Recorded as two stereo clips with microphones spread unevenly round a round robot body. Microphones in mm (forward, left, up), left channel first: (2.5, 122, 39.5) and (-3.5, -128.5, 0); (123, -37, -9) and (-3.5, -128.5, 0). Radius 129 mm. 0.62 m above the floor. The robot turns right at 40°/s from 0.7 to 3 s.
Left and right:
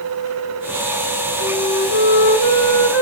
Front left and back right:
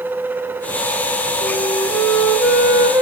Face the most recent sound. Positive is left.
turn(degrees=145)